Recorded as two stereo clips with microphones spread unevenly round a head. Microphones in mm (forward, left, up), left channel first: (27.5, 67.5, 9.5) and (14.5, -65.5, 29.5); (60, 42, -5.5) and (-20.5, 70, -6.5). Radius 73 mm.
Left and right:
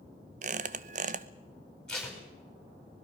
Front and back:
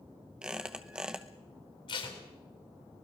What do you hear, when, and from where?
0.4 s a squeak: 120° right, 0.8 m
1.9 s tape being pulled: straight ahead, 6 m